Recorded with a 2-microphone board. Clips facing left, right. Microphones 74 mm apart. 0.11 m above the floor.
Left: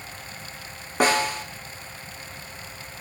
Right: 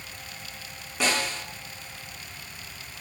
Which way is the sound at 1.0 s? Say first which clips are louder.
Left 6 dB; 45° left (ahead or behind).